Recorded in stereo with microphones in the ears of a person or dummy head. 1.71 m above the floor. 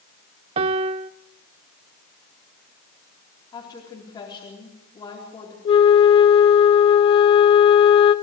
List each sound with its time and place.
0.6 s a piano: 30° right (ahead or behind), 0.6 m
3.5 s a woman speaking: 20° left (ahead or behind), 4 m
5.7 s a flute: 30° left (ahead or behind), 1.0 m